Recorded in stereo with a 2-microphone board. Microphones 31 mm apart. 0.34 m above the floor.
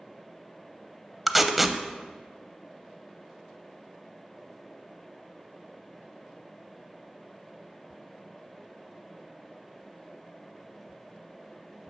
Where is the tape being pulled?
5° right (ahead or behind), 0.5 m.